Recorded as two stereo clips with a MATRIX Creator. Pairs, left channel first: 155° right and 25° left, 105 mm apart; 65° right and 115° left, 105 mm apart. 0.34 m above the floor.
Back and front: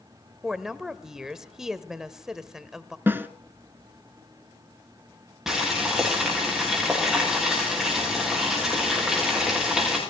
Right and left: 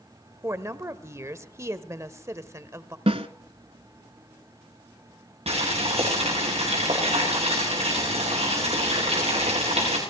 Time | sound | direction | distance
0.4 | a woman speaking | 100° left | 1.0 m
3.1 | a snare drum | 90° left | 0.9 m
5.5 | boiling | 110° left | 10 m